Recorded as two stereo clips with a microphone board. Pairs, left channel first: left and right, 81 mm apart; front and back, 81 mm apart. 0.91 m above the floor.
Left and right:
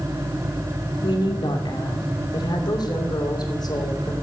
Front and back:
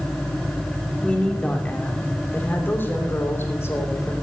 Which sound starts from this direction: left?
A woman speaking, at 1.0 s.